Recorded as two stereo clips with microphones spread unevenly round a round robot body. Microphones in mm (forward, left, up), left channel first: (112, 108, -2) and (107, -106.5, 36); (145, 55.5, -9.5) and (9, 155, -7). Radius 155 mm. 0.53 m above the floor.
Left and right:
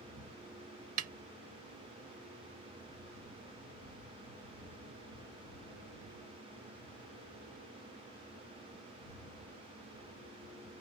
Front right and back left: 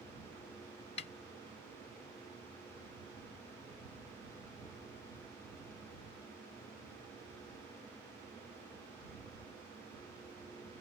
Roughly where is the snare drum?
Right.